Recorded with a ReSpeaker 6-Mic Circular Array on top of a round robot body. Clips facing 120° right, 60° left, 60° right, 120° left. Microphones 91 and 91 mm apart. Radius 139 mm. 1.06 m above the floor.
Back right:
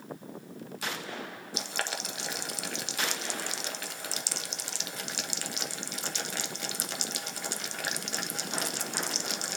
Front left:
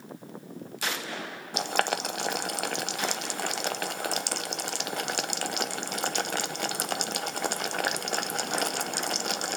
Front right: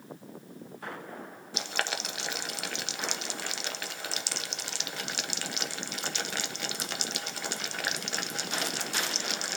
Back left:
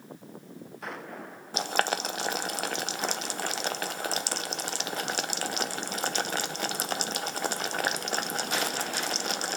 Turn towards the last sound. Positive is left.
turn(degrees=80)